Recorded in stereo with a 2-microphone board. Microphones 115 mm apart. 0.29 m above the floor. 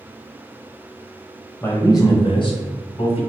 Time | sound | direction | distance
1.6 | a man speaking | 20° left (ahead or behind) | 1.1 m